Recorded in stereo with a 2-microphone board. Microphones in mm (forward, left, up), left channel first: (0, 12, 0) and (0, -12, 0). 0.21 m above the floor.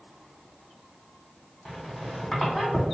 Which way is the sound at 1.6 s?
10° left (ahead or behind).